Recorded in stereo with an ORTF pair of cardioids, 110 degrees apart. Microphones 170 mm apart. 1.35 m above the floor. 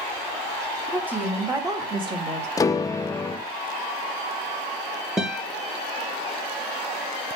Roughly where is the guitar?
Ahead.